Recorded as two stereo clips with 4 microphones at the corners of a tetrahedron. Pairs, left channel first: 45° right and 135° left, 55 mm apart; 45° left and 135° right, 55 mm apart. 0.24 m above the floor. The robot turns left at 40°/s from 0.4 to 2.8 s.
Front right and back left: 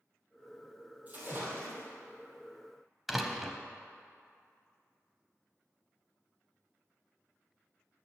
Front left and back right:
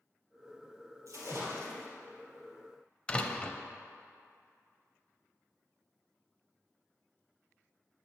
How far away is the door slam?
About 0.6 m.